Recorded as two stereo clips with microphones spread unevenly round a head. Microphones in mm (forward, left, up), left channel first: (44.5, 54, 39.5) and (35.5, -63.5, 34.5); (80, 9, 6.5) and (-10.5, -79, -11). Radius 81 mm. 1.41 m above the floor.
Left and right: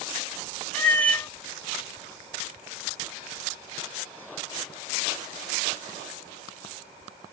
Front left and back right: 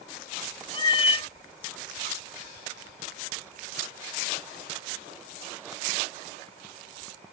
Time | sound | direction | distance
0.7 | a cat meowing | 10° left | 1.7 m